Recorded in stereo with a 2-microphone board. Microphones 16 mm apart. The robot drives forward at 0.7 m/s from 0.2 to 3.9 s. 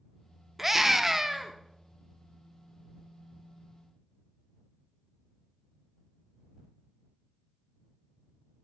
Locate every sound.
0.6 s a scream: 15° right (ahead or behind), 0.7 m; by 1.5 s 10° right (ahead or behind), 0.7 m